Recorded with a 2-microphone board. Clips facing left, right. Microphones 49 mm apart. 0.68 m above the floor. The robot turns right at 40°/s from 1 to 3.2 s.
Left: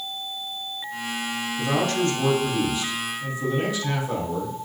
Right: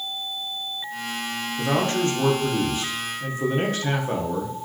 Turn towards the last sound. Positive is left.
turn(degrees=-85)